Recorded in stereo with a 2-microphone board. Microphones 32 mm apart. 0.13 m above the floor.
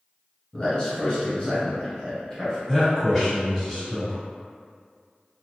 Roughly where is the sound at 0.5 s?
Left.